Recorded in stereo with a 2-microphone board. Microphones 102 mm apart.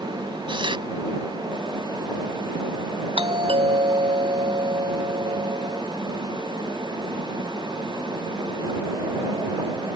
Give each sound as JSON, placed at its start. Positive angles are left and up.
{"t": 0.5, "sound": "tearing paper", "side_deg": -55}
{"t": 3.2, "sound": "a doorbell", "side_deg": -75}